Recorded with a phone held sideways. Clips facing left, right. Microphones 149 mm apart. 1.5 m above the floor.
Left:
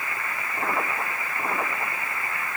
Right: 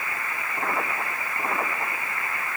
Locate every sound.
Only background noise.